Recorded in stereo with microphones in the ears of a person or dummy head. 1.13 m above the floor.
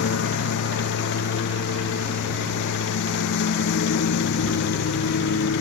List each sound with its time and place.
0.0 s a lawn mower: 60° left (ahead or behind)